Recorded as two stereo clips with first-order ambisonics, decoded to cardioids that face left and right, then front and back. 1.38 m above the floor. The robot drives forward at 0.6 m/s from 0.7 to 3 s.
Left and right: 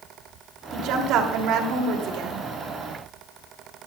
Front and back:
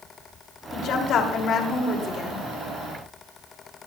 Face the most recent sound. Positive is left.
turn(degrees=-80)